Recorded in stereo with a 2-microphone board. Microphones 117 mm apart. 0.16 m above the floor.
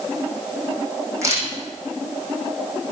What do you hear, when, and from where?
1.2 s a camera shutter: 25° right (ahead or behind), 6 m